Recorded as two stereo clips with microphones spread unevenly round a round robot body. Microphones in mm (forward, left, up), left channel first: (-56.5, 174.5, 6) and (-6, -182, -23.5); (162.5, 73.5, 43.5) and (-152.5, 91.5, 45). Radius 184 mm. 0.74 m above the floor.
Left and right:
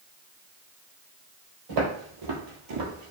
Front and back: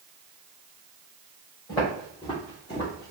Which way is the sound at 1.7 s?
80° right.